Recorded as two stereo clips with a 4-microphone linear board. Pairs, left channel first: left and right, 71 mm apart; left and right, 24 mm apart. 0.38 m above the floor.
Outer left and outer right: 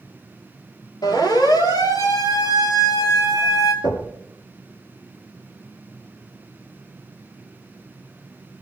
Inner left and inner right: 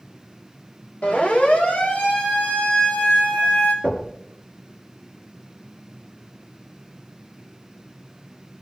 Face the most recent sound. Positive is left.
turn(degrees=80)